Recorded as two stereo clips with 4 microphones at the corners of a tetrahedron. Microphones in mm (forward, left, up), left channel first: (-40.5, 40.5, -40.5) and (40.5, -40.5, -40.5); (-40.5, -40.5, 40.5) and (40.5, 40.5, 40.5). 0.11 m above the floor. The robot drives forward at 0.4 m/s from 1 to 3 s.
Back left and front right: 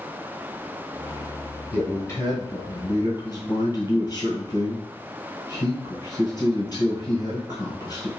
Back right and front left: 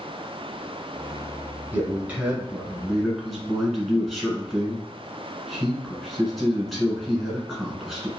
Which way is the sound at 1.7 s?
95° left.